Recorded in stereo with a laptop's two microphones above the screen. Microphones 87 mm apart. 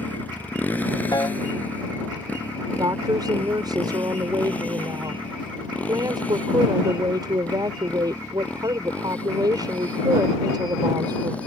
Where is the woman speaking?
55° right (ahead or behind).